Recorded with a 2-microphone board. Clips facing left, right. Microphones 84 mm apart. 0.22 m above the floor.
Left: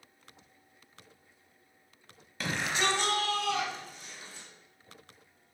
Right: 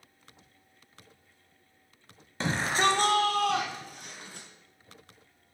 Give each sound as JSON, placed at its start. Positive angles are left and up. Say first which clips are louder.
{"t": 2.4, "sound": "a shout", "louder": "right 5 dB", "side_deg": -30, "distance_m": 1.0}